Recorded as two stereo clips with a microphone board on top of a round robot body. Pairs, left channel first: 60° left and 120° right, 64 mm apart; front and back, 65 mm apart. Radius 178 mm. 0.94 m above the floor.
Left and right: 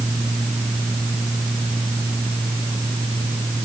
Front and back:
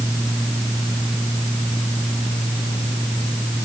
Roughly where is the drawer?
I don't hear a drawer.